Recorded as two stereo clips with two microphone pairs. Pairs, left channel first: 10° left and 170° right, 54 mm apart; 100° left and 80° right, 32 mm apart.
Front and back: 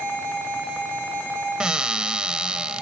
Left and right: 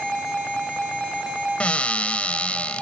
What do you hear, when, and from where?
1.6 s a cupboard door: 125° left, 0.6 m